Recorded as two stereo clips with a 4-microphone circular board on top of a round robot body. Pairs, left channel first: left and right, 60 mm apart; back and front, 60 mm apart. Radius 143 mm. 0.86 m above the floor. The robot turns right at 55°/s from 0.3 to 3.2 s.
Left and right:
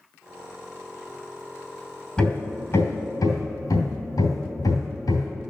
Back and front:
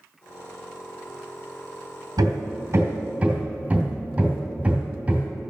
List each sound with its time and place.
2.2 s hammering: 15° left, 2.5 m; by 5.3 s 70° left, 2.5 m